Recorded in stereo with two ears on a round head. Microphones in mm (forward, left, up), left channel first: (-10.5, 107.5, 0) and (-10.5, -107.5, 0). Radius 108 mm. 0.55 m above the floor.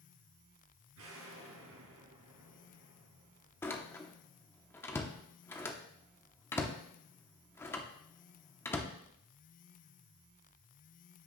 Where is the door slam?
10° left (ahead or behind), 0.8 m.